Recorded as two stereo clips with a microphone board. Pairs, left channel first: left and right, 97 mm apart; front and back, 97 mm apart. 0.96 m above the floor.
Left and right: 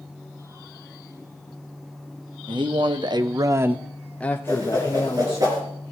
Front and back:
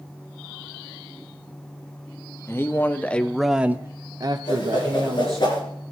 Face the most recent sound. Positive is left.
turn(degrees=-40)